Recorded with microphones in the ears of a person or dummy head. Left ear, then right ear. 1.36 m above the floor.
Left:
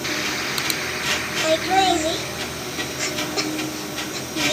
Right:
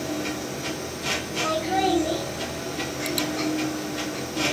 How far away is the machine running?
About 0.9 m.